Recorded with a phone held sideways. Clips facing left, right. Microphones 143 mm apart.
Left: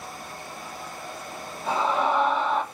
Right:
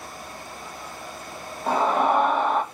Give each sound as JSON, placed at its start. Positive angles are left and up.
{"t": 1.7, "sound": "a scream", "side_deg": -50, "distance_m": 0.9}